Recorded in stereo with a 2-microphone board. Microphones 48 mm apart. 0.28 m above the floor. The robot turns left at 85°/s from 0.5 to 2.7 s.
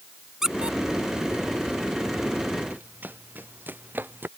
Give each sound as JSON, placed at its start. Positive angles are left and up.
{"t": 0.4, "sound": "a squeak", "side_deg": -10}
{"t": 2.7, "sound": "running footsteps", "side_deg": -35}